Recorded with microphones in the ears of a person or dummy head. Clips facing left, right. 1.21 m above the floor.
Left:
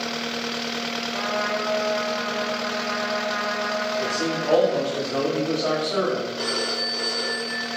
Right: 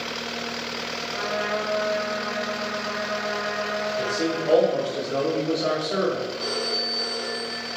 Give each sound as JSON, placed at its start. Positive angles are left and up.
{"t": 1.1, "sound": "a trumpet", "side_deg": -75, "distance_m": 4.5}
{"t": 4.0, "sound": "a man speaking", "side_deg": -20, "distance_m": 3.0}
{"t": 6.4, "sound": "a phone ringing", "side_deg": 55, "distance_m": 1.6}